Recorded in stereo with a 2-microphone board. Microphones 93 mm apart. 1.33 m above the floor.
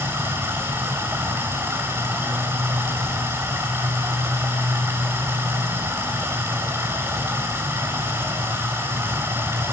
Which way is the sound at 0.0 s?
25° right (ahead or behind).